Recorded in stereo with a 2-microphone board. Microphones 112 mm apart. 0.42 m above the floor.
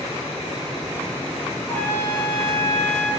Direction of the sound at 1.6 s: 15° left (ahead or behind).